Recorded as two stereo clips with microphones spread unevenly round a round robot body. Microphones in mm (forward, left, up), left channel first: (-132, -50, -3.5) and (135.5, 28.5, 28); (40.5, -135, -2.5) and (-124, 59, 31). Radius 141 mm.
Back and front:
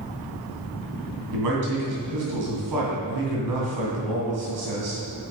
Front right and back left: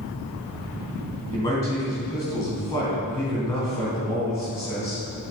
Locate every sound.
1.3 s a man speaking: 25° left, 3.5 m